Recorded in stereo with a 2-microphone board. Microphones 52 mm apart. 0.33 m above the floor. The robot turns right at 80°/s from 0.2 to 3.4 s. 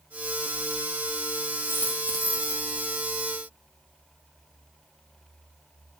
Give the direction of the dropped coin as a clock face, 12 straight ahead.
8 o'clock.